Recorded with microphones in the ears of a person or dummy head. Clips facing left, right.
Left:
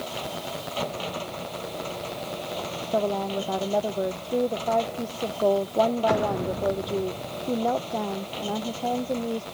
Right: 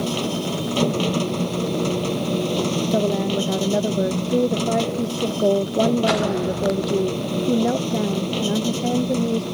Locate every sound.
0.0 s a machine running: 65° right (ahead or behind)
2.9 s a woman speaking: 30° right (ahead or behind)